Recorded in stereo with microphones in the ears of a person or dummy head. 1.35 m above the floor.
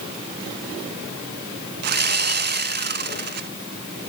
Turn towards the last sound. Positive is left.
turn(degrees=-50)  # may be behind; listen again after turning